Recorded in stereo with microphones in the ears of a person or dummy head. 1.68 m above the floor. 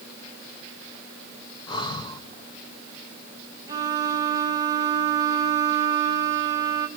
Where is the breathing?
25° left (ahead or behind), 1.1 m.